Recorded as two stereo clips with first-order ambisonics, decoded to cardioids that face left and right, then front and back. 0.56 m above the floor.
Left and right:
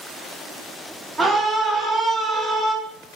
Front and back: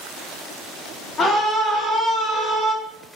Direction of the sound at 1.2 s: 20° right.